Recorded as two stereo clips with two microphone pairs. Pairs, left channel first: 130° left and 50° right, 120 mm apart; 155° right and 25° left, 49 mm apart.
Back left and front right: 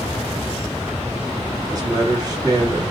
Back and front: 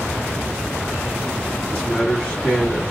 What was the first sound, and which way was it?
A man speaking, 95° right.